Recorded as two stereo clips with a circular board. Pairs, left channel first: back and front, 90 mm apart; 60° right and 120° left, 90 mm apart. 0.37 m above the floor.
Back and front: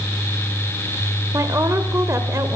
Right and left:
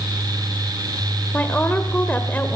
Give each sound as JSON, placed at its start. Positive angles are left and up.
{"t": 1.3, "sound": "a woman speaking", "azimuth_deg": -5, "distance_m": 1.4}